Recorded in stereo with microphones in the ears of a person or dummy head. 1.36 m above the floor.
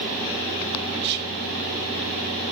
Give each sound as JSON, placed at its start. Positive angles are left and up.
{"t": 1.0, "sound": "whispering", "side_deg": -60, "distance_m": 1.5}